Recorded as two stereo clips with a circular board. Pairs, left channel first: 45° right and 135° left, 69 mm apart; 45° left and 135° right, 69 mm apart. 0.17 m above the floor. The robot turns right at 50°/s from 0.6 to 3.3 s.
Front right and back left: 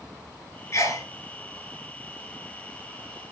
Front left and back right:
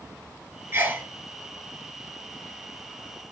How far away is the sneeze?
About 3 m.